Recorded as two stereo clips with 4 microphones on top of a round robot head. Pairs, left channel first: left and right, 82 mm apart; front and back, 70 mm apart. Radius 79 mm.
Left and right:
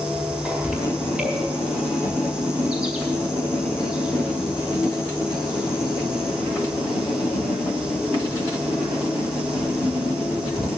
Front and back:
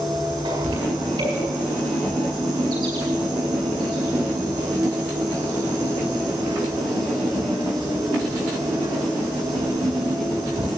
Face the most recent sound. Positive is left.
turn(degrees=-170)